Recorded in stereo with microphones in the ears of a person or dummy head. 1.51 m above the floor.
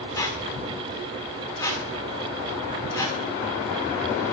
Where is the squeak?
20° left (ahead or behind), 1.4 m.